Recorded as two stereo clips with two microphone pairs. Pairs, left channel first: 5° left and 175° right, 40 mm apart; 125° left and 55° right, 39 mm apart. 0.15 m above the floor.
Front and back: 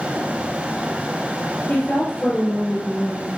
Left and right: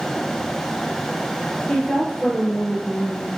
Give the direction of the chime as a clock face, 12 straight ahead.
I don't hear a chime.